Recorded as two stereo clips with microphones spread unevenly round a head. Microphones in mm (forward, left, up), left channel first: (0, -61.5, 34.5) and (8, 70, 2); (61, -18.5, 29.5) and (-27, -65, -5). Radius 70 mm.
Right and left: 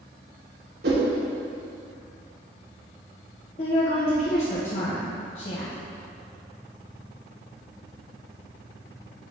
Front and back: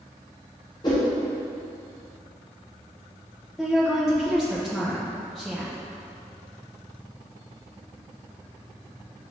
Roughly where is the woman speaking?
Ahead right.